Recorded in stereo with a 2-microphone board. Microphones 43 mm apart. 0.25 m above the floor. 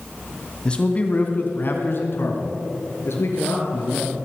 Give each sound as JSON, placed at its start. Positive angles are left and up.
{"t": 0.7, "sound": "a man speaking", "side_deg": 20, "distance_m": 1.8}